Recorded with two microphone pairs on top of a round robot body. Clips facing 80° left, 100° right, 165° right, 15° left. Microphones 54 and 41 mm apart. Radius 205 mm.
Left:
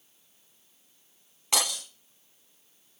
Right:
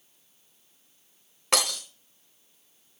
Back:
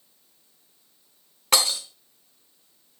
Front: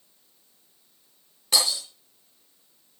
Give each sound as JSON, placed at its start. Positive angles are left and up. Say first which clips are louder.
{"t": 1.5, "sound": "breaking glass", "louder": "right 3 dB, back 2 dB", "azimuth_deg": -125, "distance_m": 1.2}